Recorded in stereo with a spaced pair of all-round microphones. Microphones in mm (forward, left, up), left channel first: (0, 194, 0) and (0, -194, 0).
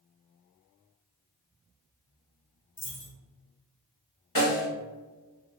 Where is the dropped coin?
30° left (ahead or behind), 1.2 m.